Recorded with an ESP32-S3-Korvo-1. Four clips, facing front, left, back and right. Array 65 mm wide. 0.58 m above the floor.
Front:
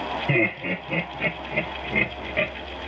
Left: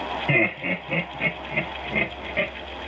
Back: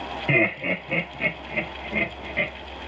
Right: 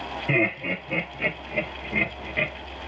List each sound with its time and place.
0.3 s laughter: 150° left, 1.6 m; by 2.5 s 25° left, 1.3 m